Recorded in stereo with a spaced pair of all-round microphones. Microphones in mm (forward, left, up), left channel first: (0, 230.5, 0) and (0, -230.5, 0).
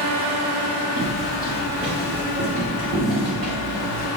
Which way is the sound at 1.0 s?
50° right (ahead or behind).